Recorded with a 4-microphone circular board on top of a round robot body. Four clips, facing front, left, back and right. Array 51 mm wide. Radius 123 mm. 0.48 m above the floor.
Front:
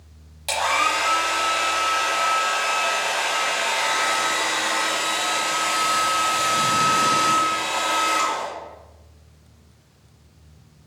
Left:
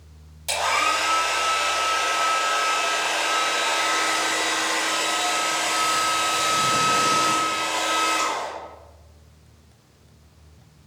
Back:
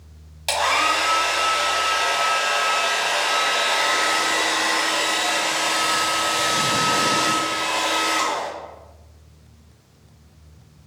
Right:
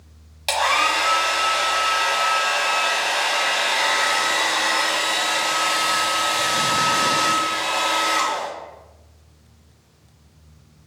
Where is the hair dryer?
105° right, 1.3 m.